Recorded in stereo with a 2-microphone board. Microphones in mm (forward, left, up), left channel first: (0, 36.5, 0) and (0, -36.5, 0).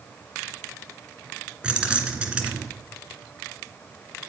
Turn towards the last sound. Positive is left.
turn(degrees=-15)  # may be behind; listen again after turning